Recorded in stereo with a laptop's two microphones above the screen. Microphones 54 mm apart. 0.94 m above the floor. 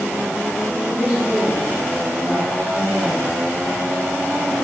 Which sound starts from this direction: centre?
A woman speaking, at 0.9 s.